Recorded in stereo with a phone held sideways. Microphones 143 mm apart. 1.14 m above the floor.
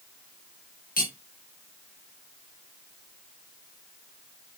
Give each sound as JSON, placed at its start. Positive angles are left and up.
{"t": 1.0, "sound": "cutlery clinking", "side_deg": 80, "distance_m": 1.1}